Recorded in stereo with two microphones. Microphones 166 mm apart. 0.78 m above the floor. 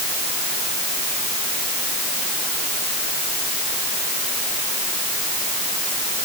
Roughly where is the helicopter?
I don't hear a helicopter.